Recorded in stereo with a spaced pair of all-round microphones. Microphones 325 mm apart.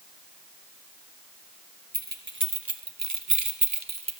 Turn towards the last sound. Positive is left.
turn(degrees=-45)  # may be behind; listen again after turning